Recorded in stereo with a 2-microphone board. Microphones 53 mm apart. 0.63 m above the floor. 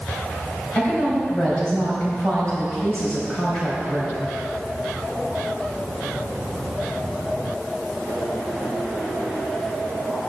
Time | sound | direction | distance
0.8 | a woman speaking | 30° left (ahead or behind) | 4 m